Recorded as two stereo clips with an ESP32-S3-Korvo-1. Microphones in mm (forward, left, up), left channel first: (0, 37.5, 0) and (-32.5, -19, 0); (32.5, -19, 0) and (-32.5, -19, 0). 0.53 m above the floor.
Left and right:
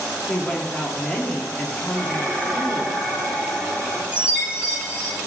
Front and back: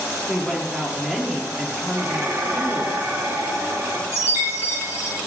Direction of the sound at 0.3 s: 100° left.